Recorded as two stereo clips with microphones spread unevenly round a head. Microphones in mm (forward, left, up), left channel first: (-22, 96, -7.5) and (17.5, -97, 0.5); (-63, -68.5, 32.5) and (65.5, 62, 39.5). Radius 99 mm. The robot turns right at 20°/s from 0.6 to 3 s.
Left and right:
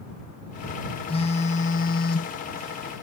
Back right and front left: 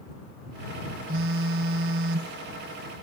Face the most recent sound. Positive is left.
turn(degrees=75)